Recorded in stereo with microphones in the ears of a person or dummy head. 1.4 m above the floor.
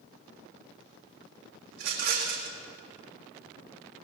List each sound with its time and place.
1.7 s a rattle: 60° right (ahead or behind), 2.0 m